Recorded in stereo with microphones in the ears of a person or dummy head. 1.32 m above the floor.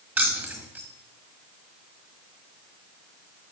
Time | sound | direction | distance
0.2 | keys jangling | 5° right (ahead or behind) | 1.6 m